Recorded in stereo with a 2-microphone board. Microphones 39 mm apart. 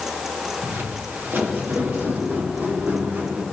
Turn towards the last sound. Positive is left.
turn(degrees=-70)  # may be behind; listen again after turning